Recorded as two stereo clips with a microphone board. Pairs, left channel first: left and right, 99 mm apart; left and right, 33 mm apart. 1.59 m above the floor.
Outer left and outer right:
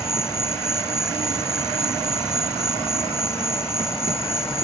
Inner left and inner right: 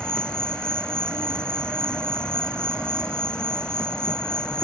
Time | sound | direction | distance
0.0 | an insect | 25° left (ahead or behind) | ?